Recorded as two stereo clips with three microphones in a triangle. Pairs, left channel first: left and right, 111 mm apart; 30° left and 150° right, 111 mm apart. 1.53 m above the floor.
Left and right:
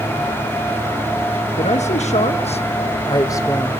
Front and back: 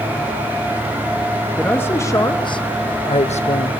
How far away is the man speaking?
About 1.7 m.